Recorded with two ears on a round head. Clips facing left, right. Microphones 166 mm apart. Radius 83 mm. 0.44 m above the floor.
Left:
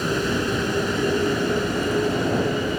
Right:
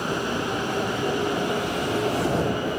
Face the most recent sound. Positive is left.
turn(degrees=25)  # may be behind; listen again after turning